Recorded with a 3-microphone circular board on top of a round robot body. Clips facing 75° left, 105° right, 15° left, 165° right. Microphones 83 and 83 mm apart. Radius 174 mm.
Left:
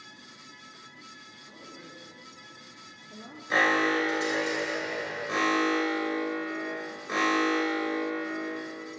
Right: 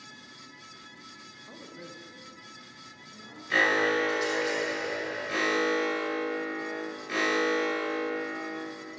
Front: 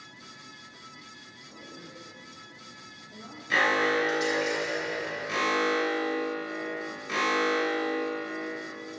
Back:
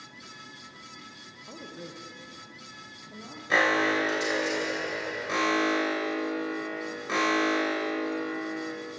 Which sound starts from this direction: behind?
A woman speaking, at 1.5 s.